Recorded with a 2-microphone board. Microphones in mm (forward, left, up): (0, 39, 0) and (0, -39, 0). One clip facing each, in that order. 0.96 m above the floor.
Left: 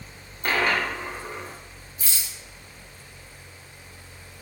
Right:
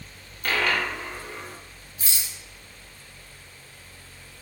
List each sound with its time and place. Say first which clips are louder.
0.4 s a dropped coin: left 1 dB; 30° left (ahead or behind), 0.9 m
2.0 s a rattle: even; 60° right (ahead or behind), 1.3 m